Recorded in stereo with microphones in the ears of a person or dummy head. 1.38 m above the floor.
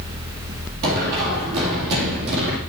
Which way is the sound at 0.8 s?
45° right (ahead or behind).